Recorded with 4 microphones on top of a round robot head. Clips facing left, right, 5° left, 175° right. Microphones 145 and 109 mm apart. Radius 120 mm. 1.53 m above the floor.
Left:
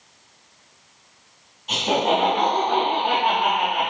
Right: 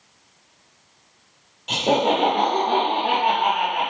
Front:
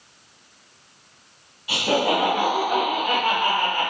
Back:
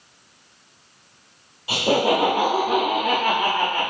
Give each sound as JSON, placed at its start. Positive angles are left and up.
{"t": 1.7, "sound": "laughter", "azimuth_deg": -115, "distance_m": 0.9}